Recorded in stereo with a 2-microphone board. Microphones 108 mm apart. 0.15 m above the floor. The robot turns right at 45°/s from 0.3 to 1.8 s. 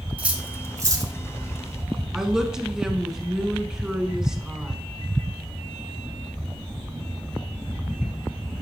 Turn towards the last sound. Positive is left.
turn(degrees=-5)  # may be behind; listen again after turning